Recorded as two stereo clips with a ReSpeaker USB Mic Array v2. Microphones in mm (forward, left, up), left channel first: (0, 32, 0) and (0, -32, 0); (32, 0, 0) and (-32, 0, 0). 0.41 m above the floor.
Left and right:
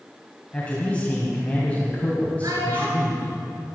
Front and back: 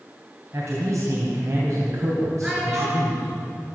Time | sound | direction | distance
0.5 | a man speaking | 155° left | 3 m
2.4 | a child speaking | 105° right | 5 m